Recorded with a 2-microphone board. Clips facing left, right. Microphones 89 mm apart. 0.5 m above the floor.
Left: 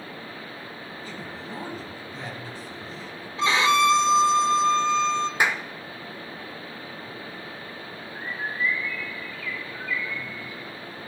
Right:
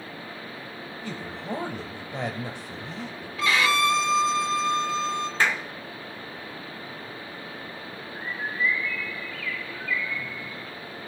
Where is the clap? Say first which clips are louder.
Right 2 dB; 15° left (ahead or behind), 0.8 m.